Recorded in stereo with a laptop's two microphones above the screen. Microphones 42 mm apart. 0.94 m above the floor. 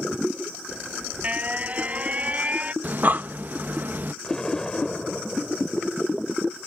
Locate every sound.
0.7 s an alarm: 30° right (ahead or behind)
2.8 s breathing: 50° right (ahead or behind)
4.2 s an explosion: 20° left (ahead or behind)